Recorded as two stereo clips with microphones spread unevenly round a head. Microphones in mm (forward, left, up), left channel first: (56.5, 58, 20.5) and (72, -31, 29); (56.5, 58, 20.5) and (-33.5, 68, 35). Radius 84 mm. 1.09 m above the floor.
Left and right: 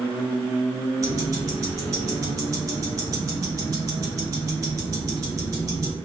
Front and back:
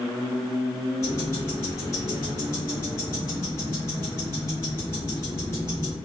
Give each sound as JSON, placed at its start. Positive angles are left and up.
{"t": 1.0, "sound": "ticking", "azimuth_deg": -75, "distance_m": 0.5}